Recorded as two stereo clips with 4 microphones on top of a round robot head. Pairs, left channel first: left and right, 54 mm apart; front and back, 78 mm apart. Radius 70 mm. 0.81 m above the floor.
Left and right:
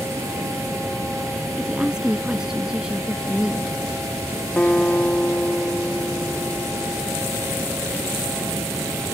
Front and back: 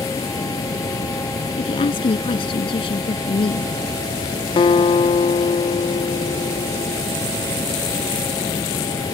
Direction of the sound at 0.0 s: 55° right.